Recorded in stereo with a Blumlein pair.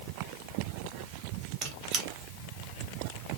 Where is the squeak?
30° right, 0.8 m.